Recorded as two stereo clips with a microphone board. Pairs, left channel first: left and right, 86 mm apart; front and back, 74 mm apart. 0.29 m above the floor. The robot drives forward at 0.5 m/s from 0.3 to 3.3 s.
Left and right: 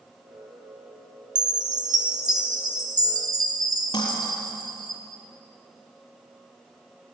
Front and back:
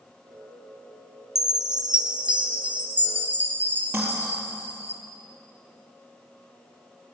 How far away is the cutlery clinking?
About 3.5 m.